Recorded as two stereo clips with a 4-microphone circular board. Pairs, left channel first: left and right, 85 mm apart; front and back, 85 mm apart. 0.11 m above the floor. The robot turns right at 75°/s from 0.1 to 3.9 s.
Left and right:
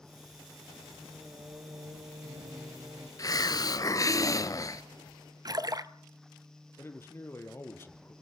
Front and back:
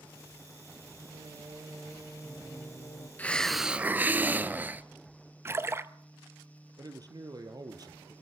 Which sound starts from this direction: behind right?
A splash, at 5.5 s.